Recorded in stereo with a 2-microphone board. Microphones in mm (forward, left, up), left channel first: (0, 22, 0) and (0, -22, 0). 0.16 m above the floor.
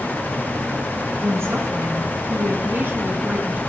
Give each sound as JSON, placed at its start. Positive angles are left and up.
{"t": 1.2, "sound": "a woman speaking", "side_deg": -65, "distance_m": 2.5}